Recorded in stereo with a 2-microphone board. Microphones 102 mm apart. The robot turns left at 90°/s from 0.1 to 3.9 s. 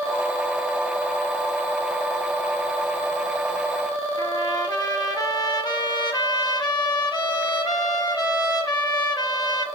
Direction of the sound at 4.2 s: 40° left (ahead or behind).